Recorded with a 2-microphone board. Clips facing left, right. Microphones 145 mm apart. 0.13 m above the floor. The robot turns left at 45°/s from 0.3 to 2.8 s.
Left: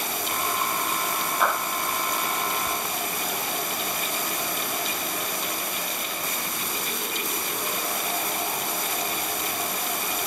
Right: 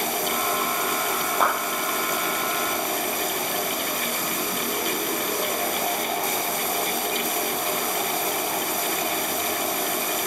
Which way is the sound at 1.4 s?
45° right (ahead or behind).